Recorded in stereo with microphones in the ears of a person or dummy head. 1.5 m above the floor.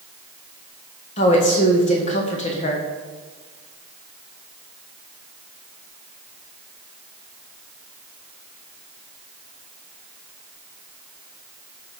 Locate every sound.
1.2 s a woman speaking: 35° left (ahead or behind), 1.6 m